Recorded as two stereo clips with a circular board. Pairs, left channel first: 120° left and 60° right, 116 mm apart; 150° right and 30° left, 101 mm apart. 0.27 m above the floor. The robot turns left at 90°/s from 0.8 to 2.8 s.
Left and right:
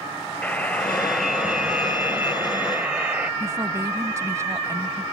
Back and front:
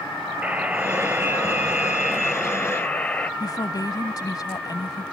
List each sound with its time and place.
0.4 s a buzzer: 75° left; by 3.3 s 105° right
3.4 s a woman speaking: 115° right